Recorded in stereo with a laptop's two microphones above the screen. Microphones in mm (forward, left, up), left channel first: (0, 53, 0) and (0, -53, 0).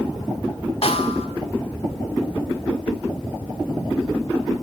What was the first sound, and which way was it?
A snare drum, 70° left (ahead or behind).